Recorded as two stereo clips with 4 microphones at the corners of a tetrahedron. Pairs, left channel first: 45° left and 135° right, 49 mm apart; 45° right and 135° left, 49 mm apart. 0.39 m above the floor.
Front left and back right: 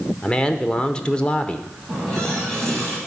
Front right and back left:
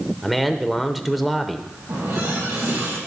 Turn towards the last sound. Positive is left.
turn(degrees=125)